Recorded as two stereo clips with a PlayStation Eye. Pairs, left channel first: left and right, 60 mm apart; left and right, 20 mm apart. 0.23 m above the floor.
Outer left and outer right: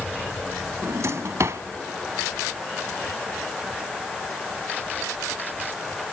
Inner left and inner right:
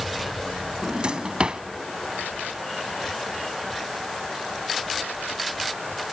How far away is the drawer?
About 0.8 m.